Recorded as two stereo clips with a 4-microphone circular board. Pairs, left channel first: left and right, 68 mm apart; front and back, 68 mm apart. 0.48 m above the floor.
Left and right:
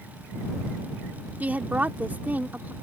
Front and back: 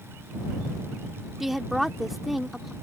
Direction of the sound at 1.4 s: 95° right.